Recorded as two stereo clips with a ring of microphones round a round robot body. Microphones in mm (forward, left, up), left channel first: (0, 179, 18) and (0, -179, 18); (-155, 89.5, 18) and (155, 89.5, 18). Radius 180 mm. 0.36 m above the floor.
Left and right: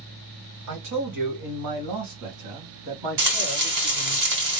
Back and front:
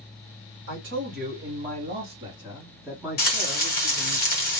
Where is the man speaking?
50° right, 2.0 m; by 4.2 s 95° right, 3 m.